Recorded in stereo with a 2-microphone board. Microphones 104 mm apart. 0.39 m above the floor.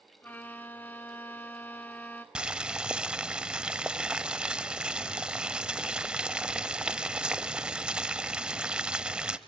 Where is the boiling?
10° right (ahead or behind), 0.6 m.